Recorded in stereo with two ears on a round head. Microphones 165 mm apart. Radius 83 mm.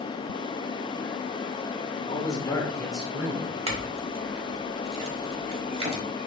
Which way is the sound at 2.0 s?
30° left (ahead or behind).